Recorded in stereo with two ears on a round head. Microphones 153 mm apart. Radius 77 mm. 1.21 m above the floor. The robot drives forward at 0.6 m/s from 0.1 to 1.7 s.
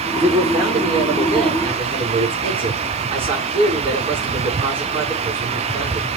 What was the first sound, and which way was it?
A man speaking, 20° right (ahead or behind).